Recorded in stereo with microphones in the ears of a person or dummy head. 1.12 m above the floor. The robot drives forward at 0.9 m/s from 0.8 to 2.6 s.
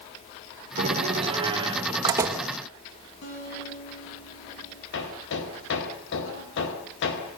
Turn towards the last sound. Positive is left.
turn(degrees=65)  # may be behind; listen again after turning